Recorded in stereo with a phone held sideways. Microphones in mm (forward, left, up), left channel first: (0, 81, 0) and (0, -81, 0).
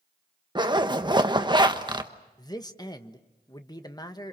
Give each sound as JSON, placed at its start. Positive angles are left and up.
{"t": 0.6, "sound": "a zipper", "side_deg": -30, "distance_m": 1.2}
{"t": 2.4, "sound": "a man speaking", "side_deg": 25, "distance_m": 1.3}